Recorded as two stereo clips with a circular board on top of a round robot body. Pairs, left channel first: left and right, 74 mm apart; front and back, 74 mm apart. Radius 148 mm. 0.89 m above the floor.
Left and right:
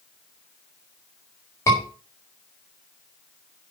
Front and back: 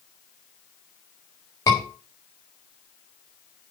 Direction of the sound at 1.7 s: 40° left.